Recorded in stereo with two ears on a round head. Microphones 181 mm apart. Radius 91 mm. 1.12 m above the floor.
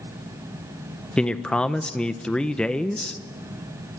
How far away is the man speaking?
About 0.9 m.